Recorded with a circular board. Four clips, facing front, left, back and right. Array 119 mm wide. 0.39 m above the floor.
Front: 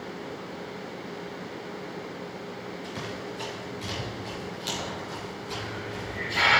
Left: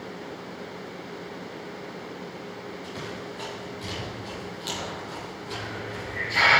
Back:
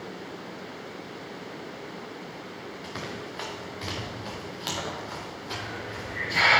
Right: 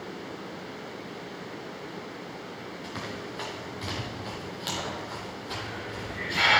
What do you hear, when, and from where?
2.8 s running footsteps: 160° right, 5.5 m
5.5 s a hiss: 130° left, 4.5 m